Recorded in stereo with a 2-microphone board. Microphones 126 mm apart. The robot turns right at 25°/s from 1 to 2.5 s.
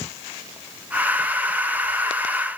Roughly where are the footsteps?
I don't hear footsteps.